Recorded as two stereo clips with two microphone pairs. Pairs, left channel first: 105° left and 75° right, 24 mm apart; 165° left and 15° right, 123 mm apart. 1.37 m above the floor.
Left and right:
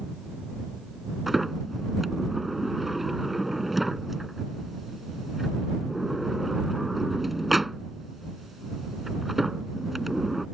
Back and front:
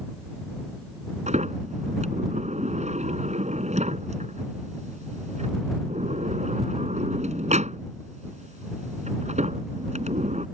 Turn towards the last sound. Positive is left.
turn(degrees=10)